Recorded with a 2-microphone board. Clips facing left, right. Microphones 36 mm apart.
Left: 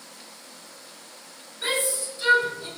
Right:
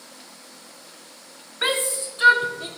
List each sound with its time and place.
1.6 s a shout: 65° right (ahead or behind), 3 m; by 2.7 s 60° right (ahead or behind), 4.5 m